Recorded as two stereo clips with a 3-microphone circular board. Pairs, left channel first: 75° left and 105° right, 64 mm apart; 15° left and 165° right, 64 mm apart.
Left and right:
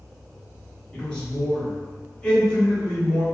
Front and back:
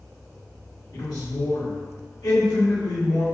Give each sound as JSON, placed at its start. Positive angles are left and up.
{"t": 0.9, "sound": "a man speaking", "azimuth_deg": 0, "distance_m": 1.4}